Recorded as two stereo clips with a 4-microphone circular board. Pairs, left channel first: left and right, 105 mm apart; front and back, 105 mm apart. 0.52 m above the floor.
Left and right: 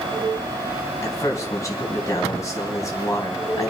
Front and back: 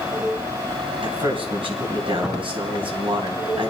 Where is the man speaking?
150° left, 3.5 m.